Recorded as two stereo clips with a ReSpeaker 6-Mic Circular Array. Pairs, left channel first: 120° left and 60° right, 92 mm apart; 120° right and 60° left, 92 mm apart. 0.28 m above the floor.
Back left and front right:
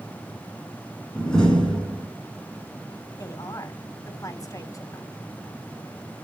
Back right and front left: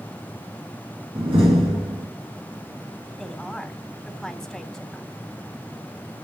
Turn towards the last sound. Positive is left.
turn(degrees=155)